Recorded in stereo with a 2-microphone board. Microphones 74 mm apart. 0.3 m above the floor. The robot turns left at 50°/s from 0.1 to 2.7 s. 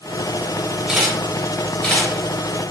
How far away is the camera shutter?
About 1.5 m.